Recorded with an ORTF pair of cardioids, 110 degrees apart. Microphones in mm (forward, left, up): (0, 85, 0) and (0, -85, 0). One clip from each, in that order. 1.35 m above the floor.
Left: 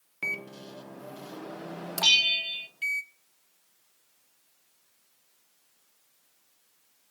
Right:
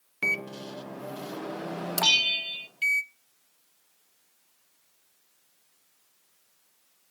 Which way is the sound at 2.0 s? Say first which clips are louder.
Left 1 dB; 10° left.